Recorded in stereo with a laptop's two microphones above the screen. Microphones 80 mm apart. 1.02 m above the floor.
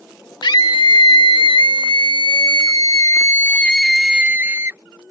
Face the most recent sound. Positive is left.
turn(degrees=-35)  # may be behind; listen again after turning